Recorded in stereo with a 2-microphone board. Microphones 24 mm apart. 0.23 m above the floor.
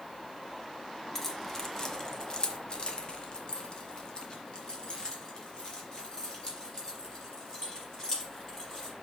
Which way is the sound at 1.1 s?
10° left (ahead or behind).